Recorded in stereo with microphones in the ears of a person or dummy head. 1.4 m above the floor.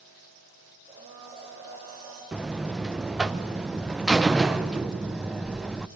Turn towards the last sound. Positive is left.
turn(degrees=-5)  # may be behind; listen again after turning